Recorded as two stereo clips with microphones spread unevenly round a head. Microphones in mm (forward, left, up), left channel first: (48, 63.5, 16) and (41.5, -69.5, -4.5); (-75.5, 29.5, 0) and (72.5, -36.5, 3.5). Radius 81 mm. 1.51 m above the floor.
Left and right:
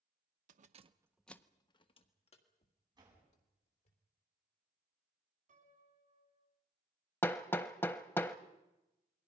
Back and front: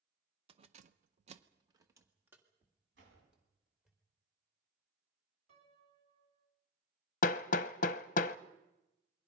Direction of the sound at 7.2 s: 150° left.